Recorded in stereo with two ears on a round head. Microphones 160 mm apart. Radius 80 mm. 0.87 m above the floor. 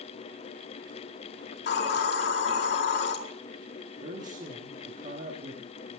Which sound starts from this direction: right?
A man speaking, at 4.0 s.